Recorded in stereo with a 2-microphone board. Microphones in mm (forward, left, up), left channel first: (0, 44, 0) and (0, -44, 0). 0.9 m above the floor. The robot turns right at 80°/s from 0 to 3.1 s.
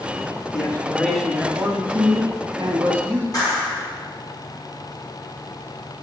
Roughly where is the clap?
Left.